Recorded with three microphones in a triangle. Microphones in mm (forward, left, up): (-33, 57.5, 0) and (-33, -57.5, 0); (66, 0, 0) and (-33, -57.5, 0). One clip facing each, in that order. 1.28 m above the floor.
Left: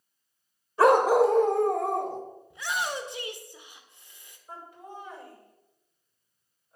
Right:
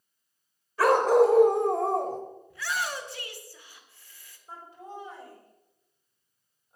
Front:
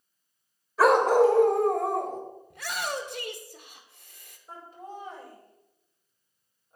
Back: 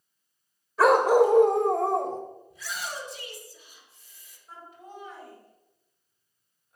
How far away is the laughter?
About 5 m.